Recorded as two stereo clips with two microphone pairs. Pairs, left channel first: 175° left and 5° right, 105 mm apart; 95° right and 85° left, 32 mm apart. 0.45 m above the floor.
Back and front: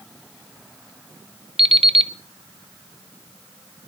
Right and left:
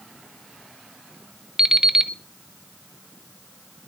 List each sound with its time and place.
1.6 s an alarm clock: 15° left, 0.8 m